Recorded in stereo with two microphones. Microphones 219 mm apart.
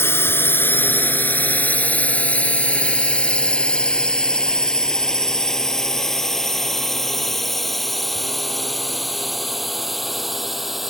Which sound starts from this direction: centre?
A drone, at 0.0 s.